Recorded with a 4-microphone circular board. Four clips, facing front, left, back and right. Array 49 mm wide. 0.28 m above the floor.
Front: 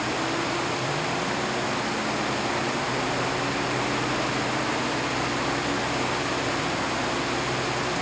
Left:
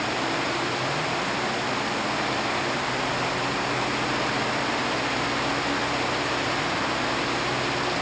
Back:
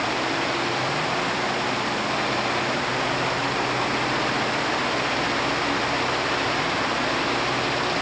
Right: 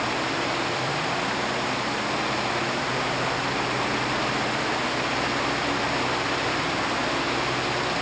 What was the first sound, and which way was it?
Only background noise.